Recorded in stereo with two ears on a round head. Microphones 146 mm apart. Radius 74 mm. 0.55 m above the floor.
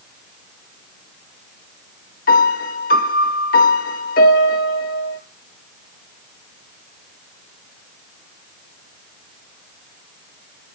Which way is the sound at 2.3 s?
55° left (ahead or behind).